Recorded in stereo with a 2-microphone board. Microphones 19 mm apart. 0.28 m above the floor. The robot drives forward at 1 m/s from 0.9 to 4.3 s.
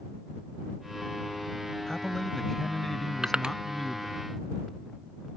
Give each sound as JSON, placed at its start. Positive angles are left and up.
{"t": 1.9, "sound": "a man speaking", "side_deg": 25}
{"t": 3.2, "sound": "crushing", "side_deg": -45}